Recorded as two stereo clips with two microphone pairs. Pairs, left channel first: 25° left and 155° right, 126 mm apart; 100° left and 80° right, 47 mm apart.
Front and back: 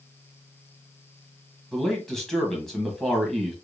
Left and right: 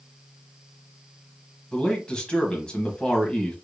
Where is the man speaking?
105° left, 1.0 m.